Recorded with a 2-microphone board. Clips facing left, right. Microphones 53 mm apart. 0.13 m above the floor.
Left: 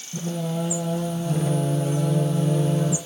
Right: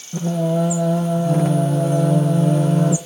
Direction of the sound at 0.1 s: 65° right (ahead or behind).